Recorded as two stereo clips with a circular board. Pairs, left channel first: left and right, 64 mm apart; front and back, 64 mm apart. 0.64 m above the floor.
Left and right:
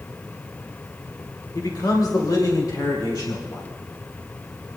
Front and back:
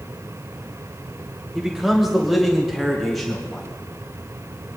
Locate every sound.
1.6 s a man speaking: 100° left, 1.8 m; by 3.7 s 90° left, 4 m